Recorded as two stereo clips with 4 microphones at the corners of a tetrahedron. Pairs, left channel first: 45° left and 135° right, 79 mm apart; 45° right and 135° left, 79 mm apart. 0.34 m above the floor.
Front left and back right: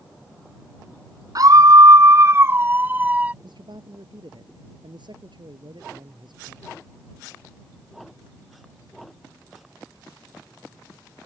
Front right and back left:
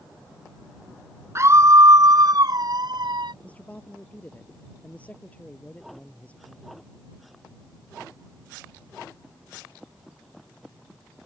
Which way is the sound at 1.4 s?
170° right.